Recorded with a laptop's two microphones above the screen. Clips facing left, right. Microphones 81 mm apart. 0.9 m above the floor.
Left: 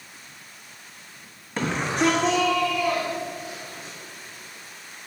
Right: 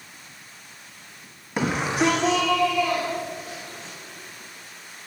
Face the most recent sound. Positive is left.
turn(degrees=5)  # may be behind; listen again after turning